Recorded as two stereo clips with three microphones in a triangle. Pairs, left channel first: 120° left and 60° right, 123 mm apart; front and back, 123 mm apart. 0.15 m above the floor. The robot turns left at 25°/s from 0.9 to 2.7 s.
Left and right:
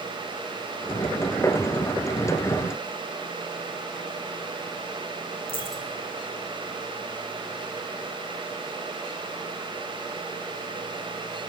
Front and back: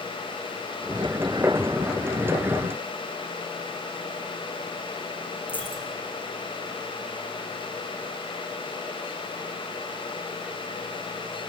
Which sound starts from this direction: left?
A dropped coin, at 5.5 s.